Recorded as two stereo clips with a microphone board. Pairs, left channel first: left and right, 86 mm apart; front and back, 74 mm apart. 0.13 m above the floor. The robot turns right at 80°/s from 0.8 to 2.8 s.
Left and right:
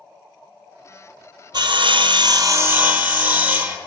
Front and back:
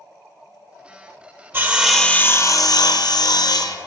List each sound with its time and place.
1.5 s sawing: 120° right, 0.6 m; by 3.8 s 20° right, 0.6 m